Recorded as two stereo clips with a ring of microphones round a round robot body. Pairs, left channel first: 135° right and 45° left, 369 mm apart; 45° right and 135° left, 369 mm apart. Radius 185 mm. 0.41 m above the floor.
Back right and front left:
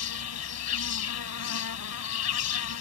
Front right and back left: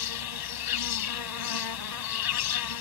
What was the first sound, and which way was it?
An insect, 80° right.